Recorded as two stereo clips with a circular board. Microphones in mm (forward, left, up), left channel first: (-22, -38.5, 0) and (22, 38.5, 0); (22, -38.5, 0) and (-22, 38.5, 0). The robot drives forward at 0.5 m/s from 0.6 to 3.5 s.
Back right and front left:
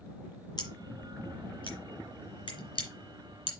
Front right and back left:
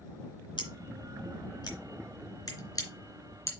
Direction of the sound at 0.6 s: 85° right.